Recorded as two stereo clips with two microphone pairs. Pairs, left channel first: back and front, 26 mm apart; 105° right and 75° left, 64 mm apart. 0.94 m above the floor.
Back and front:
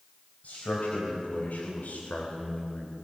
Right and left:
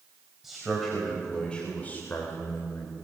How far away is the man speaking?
About 4.5 m.